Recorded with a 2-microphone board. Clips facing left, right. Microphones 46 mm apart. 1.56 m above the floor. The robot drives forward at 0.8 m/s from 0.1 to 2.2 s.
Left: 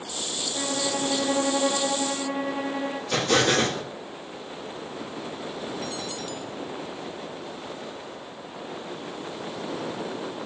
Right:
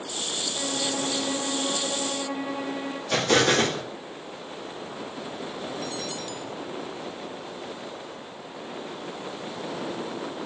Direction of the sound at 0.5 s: 25° left (ahead or behind).